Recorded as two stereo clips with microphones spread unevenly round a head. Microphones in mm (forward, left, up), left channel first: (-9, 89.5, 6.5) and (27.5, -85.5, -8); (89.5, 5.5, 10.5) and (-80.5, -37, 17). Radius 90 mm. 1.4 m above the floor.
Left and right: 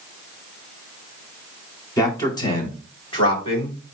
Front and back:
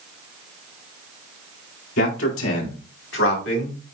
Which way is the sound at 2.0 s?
30° left.